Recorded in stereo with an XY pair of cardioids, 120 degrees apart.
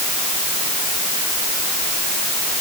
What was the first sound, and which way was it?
Only background noise.